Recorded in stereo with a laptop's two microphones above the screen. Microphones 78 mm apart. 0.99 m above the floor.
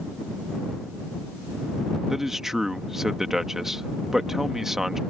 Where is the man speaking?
5° right (ahead or behind).